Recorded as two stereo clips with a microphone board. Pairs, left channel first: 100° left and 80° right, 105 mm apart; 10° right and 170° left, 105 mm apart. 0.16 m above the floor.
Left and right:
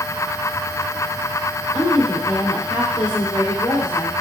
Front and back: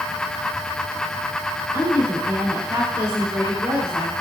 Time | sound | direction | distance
1.7 | a woman speaking | 100° left | 2 m